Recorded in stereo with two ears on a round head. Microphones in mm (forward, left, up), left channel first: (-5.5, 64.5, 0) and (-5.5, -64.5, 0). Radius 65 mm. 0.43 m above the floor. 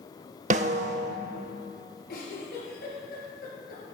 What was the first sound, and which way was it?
A snare drum, 55° right (ahead or behind).